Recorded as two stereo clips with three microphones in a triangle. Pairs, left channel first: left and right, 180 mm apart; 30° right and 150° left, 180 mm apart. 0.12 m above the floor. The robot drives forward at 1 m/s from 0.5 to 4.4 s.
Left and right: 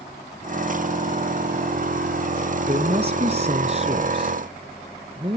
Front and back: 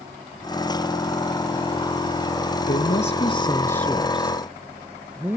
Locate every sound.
2.6 s a woman speaking: 40° right, 1.7 m; by 5.4 s 135° right, 1.5 m